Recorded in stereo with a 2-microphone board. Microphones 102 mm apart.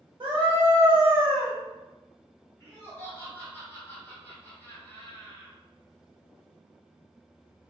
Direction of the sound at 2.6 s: 25° left (ahead or behind).